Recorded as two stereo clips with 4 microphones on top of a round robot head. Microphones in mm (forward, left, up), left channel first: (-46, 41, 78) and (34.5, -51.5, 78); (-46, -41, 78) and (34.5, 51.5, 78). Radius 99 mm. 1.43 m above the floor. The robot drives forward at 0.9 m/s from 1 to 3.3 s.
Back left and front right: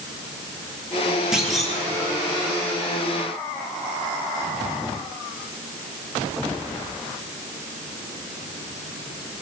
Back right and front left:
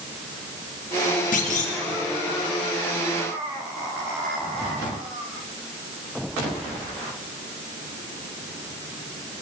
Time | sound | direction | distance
1.3 | a clunk | 135° right | 2.5 m